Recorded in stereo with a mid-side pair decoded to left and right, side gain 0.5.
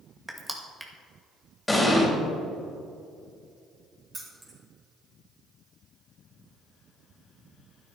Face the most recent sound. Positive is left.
turn(degrees=-30)